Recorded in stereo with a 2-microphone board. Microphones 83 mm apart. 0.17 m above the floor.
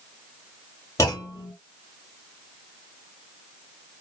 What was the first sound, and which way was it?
A clunk, 35° left (ahead or behind).